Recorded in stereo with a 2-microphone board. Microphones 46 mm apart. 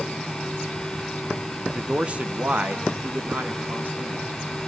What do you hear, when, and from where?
1.7 s a man speaking: 15° right (ahead or behind), 1.1 m; by 4.3 s 45° right (ahead or behind), 3 m